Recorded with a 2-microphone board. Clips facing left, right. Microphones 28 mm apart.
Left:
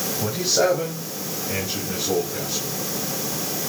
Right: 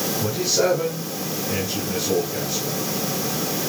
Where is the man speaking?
30° left (ahead or behind), 4 m; by 2.7 s 5° left (ahead or behind), 3.5 m.